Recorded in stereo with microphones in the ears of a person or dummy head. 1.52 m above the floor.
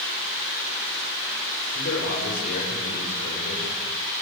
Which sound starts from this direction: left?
A man speaking, at 1.7 s.